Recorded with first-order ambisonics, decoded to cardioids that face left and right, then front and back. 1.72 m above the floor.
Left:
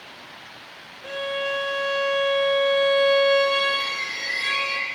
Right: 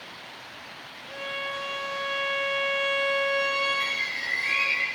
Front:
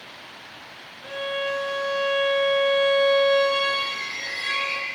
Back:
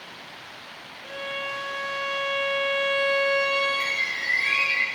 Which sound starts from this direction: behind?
A bird, at 3.8 s.